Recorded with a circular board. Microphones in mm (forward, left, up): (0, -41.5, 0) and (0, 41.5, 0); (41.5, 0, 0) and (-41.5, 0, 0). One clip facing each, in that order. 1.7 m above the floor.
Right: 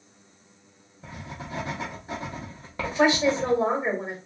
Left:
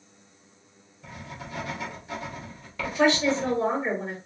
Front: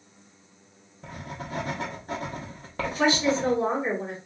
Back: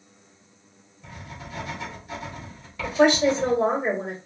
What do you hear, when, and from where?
1.0 s writing: 35° right, 1.0 m
2.8 s a woman speaking: 160° right, 1.8 m